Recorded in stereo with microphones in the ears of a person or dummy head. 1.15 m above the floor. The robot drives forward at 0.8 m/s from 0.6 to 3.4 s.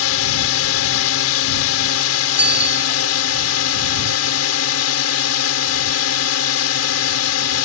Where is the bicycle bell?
10° right (ahead or behind).